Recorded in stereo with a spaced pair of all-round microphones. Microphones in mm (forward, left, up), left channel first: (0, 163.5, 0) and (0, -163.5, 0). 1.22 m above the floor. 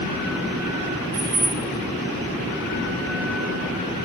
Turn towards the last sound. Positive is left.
turn(degrees=-10)  # may be behind; listen again after turning